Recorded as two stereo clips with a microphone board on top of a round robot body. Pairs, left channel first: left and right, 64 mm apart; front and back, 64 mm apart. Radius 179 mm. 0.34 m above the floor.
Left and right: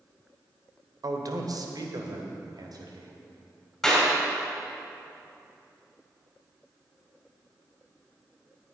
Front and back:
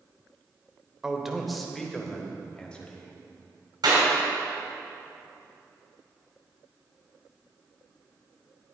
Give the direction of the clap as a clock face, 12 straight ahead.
6 o'clock.